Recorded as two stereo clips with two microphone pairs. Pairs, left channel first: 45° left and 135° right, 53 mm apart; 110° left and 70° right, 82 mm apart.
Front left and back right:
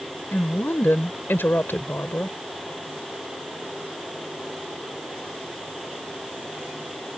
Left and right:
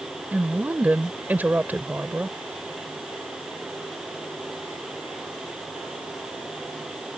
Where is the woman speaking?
5° right.